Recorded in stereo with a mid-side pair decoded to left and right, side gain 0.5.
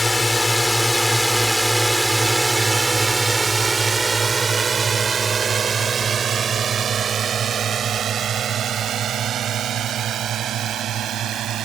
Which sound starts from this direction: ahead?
A drone, at 0.0 s.